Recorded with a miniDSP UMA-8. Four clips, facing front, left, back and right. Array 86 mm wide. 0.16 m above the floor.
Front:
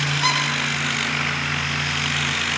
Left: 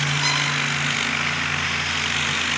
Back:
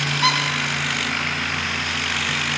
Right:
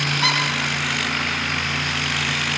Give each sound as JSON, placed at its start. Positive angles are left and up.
{"t": 0.2, "sound": "a squeak", "azimuth_deg": -145, "distance_m": 3.5}